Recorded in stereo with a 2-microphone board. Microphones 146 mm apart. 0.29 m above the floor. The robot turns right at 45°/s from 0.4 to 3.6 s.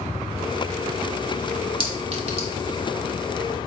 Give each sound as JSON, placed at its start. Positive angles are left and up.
{"t": 1.8, "sound": "a clink", "side_deg": -40, "distance_m": 1.0}